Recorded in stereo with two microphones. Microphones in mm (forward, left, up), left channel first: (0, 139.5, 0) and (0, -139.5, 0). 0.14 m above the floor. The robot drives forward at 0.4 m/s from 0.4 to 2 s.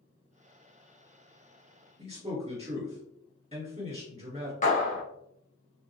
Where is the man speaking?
20° right (ahead or behind), 2.0 m.